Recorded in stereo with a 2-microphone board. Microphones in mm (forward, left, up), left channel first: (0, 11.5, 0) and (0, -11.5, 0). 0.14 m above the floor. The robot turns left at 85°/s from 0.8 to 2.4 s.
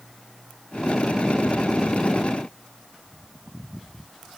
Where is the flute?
No flute in this recording.